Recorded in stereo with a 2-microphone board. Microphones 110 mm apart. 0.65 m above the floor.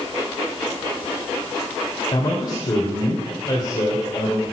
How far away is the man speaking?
About 2.5 m.